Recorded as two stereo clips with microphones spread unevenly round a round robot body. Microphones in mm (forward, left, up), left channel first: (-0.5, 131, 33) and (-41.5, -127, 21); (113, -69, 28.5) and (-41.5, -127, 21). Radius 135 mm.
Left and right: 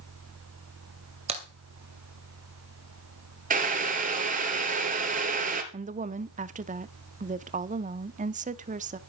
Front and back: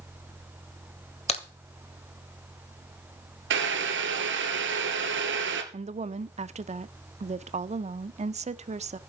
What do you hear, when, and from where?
1.3 s a crack: 30° right, 2.5 m
3.5 s boiling: 160° right, 2.5 m
5.7 s a woman speaking: 145° right, 0.8 m